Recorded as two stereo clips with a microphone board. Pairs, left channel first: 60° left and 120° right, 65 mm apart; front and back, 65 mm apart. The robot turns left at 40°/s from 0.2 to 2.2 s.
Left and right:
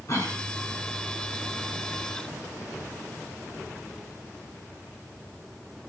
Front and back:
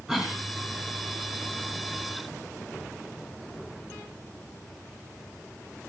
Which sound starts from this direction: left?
A cough, at 0.1 s.